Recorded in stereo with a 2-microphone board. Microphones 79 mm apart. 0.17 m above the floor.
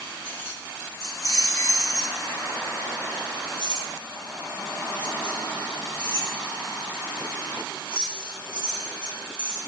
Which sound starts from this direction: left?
Keys jangling, at 0.2 s.